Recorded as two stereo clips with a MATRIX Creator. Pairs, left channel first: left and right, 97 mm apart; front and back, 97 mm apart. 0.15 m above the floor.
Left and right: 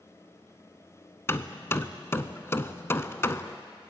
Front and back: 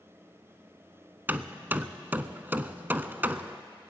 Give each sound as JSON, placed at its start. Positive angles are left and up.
{"t": 1.3, "sound": "hammering", "azimuth_deg": 130, "distance_m": 0.5}